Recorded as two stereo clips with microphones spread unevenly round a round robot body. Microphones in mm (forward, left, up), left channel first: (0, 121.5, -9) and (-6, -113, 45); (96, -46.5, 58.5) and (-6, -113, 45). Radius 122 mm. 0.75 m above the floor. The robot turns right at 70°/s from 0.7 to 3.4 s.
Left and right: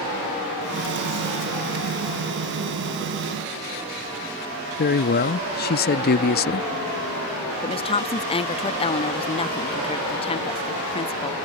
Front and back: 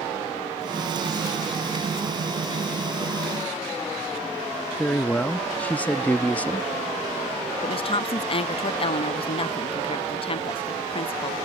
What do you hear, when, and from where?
4.8 s a man speaking: 115° left
7.6 s a woman speaking: 55° left